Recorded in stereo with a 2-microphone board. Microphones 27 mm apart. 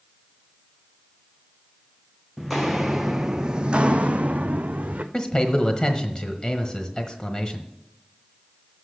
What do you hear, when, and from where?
2.4 s footsteps: centre (ahead or behind), 0.9 m; by 5.0 s 75° right (ahead or behind), 1.0 m
5.1 s a man speaking: 30° left (ahead or behind), 1.3 m